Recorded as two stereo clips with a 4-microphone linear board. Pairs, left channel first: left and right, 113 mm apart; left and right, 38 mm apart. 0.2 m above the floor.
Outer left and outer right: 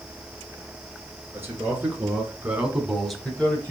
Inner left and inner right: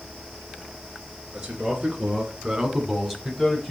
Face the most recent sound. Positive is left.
turn(degrees=15)  # may be behind; listen again after turning